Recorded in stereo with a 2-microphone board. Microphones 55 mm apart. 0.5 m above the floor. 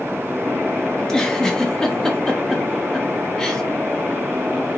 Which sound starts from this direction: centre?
A giggle, at 1.0 s.